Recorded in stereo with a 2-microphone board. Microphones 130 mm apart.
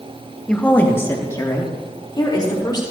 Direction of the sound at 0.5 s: 10° left (ahead or behind).